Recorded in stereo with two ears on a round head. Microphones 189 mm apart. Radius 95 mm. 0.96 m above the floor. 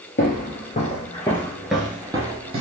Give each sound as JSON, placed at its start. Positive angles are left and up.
{"t": 0.2, "sound": "footsteps", "side_deg": 45, "distance_m": 1.2}